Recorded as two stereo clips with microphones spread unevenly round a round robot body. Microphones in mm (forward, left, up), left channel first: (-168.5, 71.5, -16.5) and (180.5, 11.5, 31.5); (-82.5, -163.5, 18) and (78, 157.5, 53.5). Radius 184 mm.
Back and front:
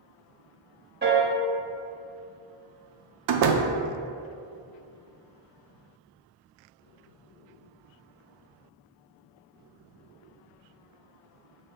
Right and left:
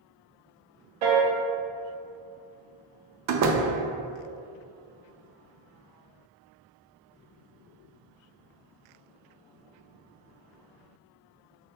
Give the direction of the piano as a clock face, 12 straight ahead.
10 o'clock.